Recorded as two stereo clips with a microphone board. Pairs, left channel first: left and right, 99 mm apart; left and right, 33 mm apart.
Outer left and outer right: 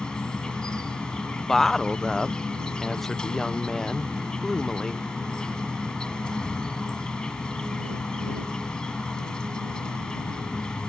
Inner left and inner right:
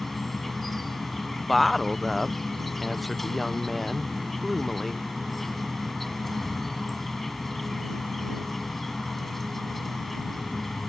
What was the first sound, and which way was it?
An insect, 10° left (ahead or behind).